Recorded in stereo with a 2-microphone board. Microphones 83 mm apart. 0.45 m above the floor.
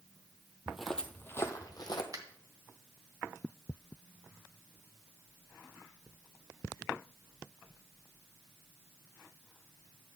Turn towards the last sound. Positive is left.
turn(degrees=-50)  # may be behind; listen again after turning